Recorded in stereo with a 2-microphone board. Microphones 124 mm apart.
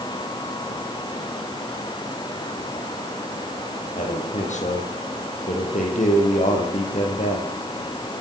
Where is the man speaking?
80° left, 7.5 m.